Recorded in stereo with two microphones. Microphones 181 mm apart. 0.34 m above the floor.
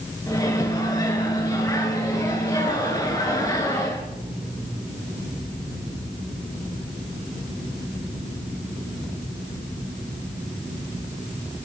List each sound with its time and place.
0.3 s a microwave: 20° left (ahead or behind), 3.5 m